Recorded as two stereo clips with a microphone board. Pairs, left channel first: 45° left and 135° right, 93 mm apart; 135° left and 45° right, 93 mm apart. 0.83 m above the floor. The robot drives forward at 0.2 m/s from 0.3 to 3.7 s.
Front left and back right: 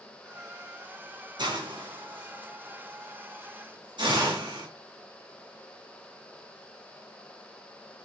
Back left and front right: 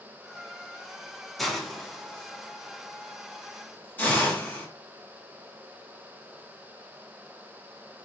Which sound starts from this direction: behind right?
A hiss, at 1.4 s.